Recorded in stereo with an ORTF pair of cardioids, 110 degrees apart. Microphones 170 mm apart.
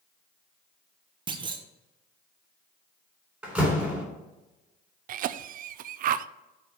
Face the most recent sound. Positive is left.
turn(degrees=-55)